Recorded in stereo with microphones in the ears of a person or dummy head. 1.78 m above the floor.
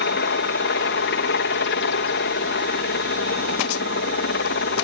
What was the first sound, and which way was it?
A helicopter, 60° left (ahead or behind).